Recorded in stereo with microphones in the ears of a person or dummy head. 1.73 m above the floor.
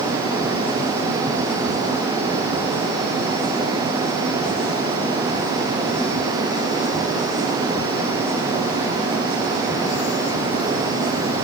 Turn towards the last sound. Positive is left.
No sound to turn to.